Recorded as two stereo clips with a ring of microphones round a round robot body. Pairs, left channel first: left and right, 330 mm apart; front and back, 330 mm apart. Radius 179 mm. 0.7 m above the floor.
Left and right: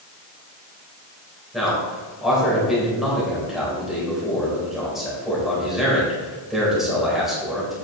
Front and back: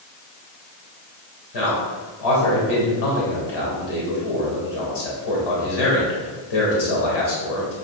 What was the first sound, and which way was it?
A man speaking, straight ahead.